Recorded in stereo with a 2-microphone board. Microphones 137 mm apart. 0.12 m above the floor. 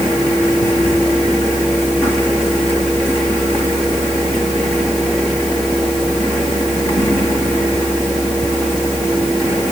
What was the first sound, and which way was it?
Only background noise.